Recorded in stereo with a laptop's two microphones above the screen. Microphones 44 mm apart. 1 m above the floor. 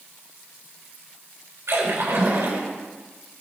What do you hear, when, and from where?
1.7 s a splash: 70° right (ahead or behind), 4.5 m